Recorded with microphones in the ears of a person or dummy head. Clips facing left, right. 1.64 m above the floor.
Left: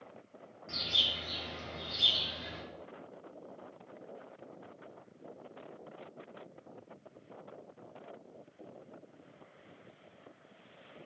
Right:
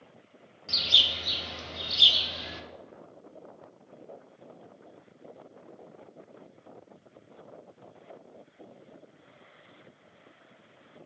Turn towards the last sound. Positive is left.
turn(degrees=-45)  # may be behind; listen again after turning